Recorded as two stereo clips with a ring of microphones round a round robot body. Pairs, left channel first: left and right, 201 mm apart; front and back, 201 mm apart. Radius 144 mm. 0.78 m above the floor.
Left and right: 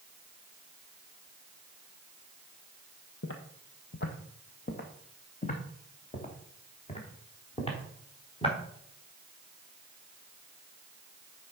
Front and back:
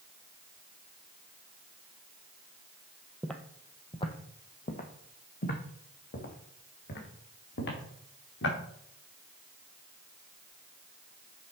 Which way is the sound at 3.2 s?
90° left.